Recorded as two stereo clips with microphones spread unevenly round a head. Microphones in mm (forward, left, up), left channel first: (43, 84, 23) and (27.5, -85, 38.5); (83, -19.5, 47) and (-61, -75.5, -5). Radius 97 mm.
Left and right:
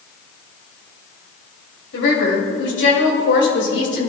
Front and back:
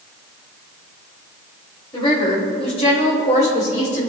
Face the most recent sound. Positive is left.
turn(degrees=75)